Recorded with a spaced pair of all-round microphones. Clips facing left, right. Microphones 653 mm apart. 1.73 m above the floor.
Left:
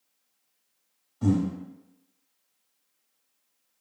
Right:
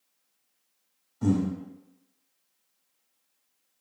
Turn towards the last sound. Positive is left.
turn(degrees=0)  # may be behind; listen again after turning